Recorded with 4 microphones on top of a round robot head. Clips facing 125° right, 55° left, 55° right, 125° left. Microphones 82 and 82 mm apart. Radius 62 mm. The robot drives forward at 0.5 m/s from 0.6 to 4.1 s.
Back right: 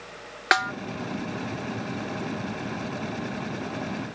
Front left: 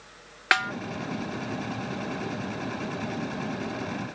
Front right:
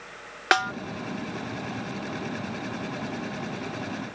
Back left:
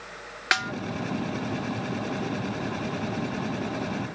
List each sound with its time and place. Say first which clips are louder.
0.5 s a snare drum: back right 2 dB, front right 4 dB; 65° right; by 0.7 s 75° right